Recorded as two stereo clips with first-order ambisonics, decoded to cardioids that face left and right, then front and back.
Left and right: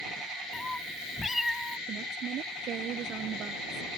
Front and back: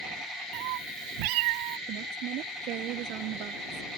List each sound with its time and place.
0.5 s a cat meowing: 170° left; by 1.8 s straight behind
1.9 s a woman speaking: 140° right